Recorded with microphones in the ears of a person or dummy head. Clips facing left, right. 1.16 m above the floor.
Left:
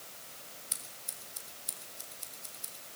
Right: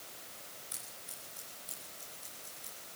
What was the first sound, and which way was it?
Scissors, 40° left (ahead or behind).